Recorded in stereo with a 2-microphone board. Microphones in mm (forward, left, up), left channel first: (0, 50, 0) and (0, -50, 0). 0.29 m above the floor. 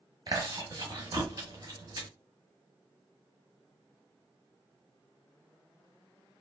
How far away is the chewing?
About 1.1 m.